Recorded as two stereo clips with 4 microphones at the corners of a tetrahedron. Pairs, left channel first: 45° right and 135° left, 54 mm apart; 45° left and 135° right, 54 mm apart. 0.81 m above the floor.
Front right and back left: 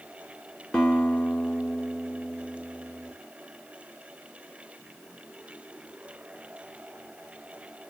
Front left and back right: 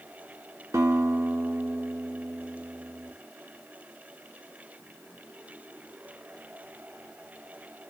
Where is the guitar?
120° right, 1.0 m.